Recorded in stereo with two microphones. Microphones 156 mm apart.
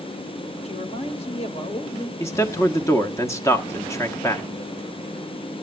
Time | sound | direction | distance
0.6 | a man speaking | 45° left (ahead or behind) | 1.8 m
2.2 | a man speaking | 20° left (ahead or behind) | 0.9 m